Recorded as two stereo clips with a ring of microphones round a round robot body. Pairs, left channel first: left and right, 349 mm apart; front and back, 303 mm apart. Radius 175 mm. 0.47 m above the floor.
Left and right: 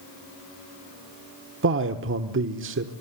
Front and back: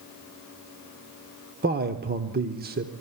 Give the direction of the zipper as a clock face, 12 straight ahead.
No zipper in this recording.